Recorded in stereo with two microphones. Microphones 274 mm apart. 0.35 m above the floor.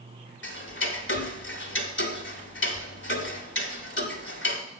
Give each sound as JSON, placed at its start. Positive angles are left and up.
{"t": 0.4, "sound": "ticking", "side_deg": 40, "distance_m": 0.9}